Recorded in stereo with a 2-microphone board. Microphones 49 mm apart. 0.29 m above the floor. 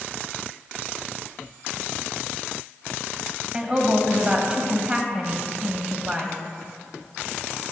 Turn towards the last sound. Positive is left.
turn(degrees=-20)  # may be behind; listen again after turning